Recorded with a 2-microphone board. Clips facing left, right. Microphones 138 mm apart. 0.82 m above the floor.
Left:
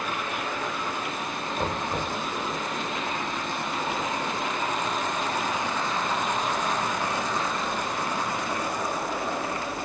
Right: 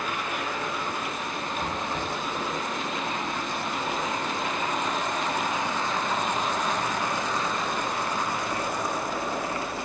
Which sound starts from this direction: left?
Knocking, at 1.6 s.